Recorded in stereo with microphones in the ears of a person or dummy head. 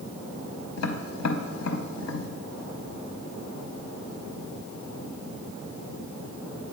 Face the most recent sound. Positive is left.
turn(degrees=85)